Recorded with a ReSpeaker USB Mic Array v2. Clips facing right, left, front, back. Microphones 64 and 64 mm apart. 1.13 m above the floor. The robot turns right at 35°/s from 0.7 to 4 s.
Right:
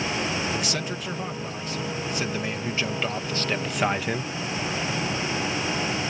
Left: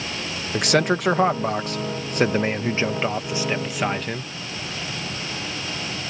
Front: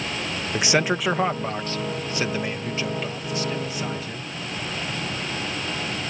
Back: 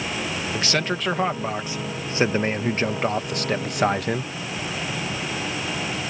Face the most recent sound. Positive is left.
turn(degrees=-175)